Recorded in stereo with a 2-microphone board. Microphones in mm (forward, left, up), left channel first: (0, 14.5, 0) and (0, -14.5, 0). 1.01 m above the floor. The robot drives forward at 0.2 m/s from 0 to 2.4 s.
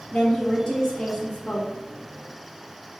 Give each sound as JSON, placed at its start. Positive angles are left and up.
{"t": 0.1, "sound": "a woman speaking", "side_deg": 20, "distance_m": 0.7}